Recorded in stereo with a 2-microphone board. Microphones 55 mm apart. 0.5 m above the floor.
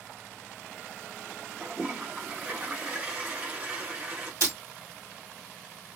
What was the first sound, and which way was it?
A toilet flushing, 25° right (ahead or behind).